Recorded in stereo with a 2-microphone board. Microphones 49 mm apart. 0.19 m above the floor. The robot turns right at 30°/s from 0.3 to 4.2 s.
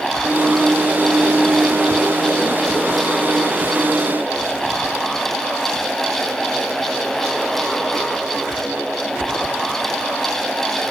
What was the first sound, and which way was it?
Only background noise.